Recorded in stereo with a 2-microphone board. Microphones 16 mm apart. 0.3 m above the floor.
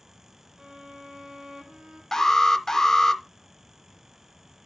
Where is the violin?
65° right (ahead or behind), 4 m.